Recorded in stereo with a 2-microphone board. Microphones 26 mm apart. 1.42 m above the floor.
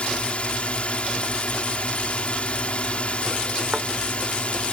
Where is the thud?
30° right (ahead or behind).